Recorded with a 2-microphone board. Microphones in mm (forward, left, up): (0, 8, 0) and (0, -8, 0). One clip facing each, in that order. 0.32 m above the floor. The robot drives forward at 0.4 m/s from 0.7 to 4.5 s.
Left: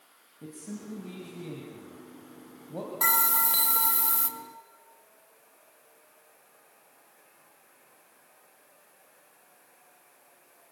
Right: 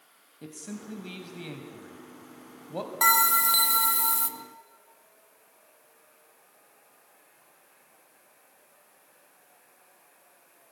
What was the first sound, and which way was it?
A man speaking, 50° right (ahead or behind).